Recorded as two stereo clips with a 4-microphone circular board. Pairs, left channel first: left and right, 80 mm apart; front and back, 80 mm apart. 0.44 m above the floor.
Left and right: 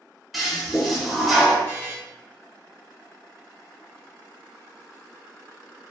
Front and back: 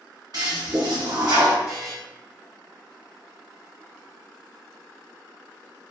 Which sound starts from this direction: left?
A buzzer, at 1.7 s.